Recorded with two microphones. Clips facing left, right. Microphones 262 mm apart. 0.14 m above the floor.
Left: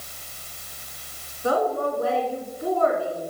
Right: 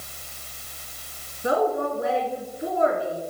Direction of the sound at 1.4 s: 20° right (ahead or behind).